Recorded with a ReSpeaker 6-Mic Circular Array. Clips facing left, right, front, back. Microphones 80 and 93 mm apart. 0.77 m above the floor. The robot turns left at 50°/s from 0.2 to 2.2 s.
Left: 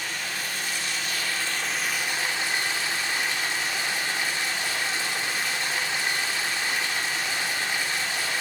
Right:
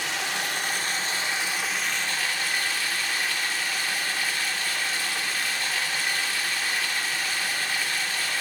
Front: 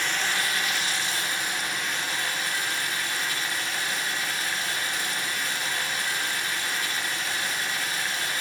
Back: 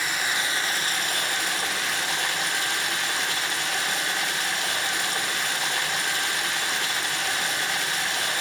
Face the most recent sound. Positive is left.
turn(degrees=160)